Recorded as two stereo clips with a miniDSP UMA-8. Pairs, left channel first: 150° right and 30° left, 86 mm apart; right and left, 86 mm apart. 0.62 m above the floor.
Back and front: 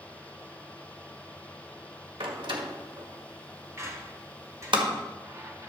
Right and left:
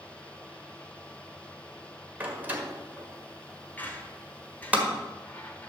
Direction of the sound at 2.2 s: 20° left.